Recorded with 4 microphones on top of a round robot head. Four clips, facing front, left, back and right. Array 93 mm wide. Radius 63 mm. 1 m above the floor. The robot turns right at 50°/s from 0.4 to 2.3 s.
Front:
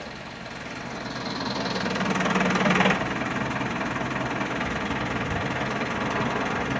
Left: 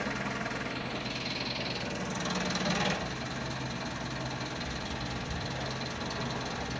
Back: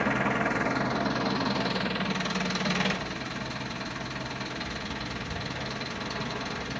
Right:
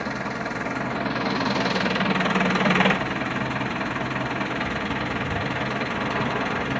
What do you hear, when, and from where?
0.0 s an engine running: 150° right, 1.3 m; by 6.8 s 55° right, 1.3 m